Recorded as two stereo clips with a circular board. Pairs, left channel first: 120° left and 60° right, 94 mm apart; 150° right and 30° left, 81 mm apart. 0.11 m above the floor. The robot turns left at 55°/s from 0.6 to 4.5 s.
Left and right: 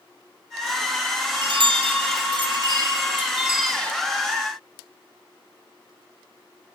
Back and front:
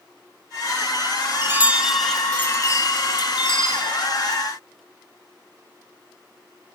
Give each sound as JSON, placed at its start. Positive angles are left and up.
{"t": 1.4, "sound": "a chime", "azimuth_deg": -25, "distance_m": 0.8}